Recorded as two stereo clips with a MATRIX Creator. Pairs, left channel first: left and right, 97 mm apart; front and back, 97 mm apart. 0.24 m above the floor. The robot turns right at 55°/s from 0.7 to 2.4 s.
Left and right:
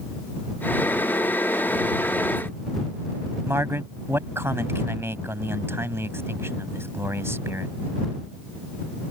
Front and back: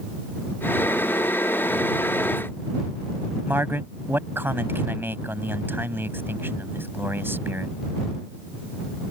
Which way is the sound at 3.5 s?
130° right.